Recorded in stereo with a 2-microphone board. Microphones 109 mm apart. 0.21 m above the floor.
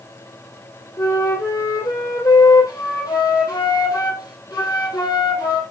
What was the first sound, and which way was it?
A flute, 35° left (ahead or behind).